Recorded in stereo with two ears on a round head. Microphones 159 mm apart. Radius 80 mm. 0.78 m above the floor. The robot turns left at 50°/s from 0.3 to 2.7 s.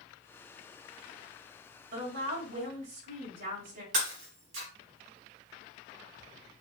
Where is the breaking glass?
85° right, 4 m.